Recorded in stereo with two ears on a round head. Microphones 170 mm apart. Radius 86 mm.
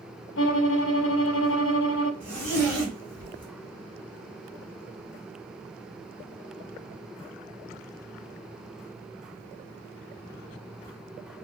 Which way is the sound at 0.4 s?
75° left (ahead or behind).